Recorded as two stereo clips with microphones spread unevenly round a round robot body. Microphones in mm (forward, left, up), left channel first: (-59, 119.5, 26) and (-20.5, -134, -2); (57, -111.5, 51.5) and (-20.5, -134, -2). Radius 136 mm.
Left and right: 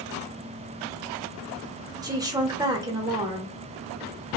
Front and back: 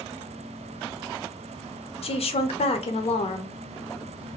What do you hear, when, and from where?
2.0 s a woman speaking: 10° right, 0.7 m